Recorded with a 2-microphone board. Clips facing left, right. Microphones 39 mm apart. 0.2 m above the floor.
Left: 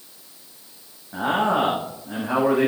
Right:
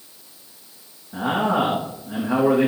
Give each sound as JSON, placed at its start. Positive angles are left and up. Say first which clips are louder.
{"t": 1.1, "sound": "a man speaking", "louder": "even", "side_deg": 40, "distance_m": 9.0}